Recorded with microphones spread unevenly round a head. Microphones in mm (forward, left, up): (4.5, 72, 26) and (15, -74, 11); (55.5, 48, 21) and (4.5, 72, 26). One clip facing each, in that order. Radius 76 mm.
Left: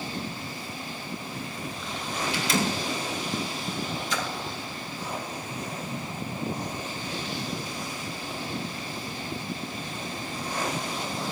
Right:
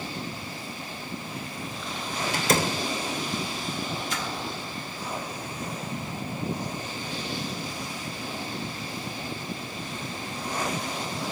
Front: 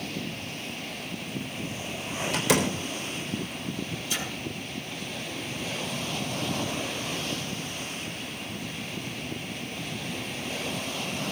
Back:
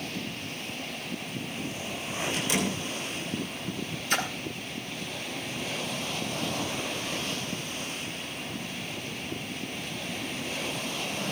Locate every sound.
2.3 s a door slam: 40° right, 3.5 m
4.1 s a splash: 120° left, 4 m